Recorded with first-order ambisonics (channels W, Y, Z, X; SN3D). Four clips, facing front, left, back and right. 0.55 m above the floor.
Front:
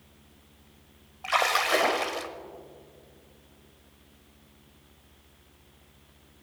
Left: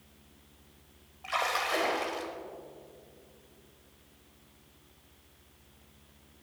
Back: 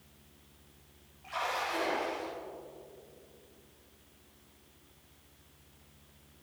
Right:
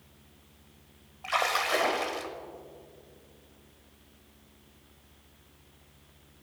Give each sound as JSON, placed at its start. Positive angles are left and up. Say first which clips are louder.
{"t": 1.2, "sound": "a splash", "louder": "right 3 dB, front 10 dB", "azimuth_deg": -15, "distance_m": 0.7}